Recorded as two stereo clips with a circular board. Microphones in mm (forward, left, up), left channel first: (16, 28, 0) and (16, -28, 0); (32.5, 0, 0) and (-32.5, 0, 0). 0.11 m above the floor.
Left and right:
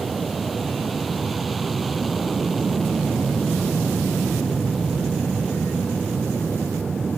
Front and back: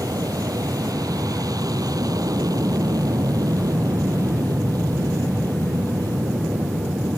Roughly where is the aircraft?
Behind.